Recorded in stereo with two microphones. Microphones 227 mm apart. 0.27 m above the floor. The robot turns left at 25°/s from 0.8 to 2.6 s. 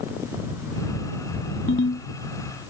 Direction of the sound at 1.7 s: 60° left (ahead or behind).